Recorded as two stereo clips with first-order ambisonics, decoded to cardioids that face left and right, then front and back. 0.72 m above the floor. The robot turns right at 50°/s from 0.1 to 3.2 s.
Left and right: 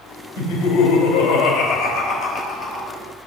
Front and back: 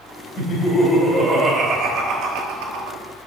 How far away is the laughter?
About 3.5 m.